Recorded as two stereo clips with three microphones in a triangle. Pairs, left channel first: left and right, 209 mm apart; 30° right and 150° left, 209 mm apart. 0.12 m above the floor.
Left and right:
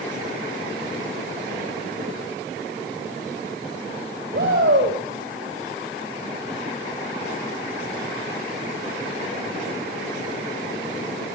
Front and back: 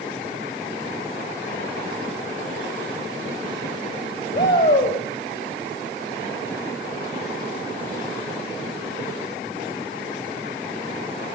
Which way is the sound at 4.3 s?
55° right.